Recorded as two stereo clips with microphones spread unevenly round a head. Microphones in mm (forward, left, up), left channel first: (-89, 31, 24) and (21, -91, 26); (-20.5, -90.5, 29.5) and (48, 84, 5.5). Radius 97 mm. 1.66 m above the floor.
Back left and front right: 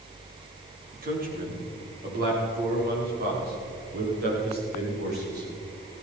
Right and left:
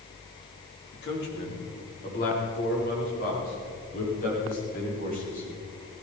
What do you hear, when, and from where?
0.9 s a man speaking: 80° right, 4 m; by 5.5 s 65° right, 7.5 m